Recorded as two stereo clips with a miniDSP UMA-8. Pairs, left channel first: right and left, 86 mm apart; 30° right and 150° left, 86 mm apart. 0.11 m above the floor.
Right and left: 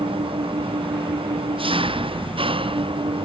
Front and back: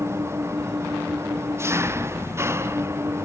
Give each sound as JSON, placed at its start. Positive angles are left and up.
{"t": 0.0, "sound": "an engine running", "azimuth_deg": 90}